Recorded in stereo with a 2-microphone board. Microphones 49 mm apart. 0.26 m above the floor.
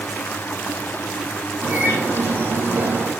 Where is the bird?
55° right (ahead or behind), 3.5 m.